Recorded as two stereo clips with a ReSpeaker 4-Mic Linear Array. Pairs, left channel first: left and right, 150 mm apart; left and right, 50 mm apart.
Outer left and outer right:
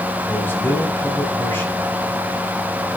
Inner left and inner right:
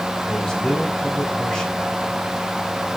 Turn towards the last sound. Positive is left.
turn(degrees=15)  # may be behind; listen again after turning